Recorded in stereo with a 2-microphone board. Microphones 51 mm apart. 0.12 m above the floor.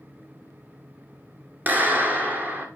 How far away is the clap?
About 1.7 m.